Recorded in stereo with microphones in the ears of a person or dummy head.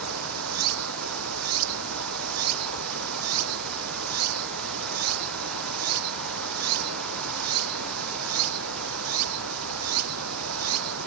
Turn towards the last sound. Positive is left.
turn(degrees=-85)